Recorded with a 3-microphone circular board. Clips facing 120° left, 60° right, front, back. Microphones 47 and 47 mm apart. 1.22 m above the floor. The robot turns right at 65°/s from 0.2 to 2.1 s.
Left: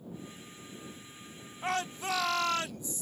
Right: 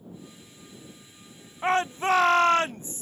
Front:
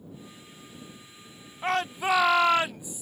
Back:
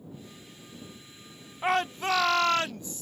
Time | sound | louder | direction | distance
1.6 | a shout | right 9 dB, even | 100° right | ?